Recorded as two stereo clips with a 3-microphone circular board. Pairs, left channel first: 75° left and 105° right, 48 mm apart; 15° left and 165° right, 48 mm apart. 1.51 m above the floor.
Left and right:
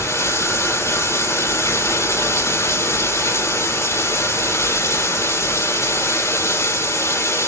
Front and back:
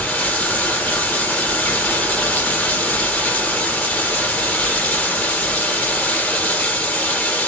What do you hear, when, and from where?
0.0 s running water: 70° left, 6.5 m